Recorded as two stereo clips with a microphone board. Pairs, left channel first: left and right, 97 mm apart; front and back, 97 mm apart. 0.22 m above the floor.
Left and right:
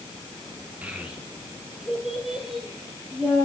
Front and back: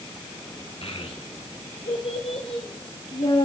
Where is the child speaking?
15° right, 2 m; by 3.5 s straight ahead, 4 m.